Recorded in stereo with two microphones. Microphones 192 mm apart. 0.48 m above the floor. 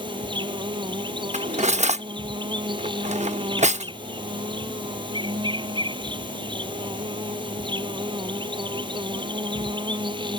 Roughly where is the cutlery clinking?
Right.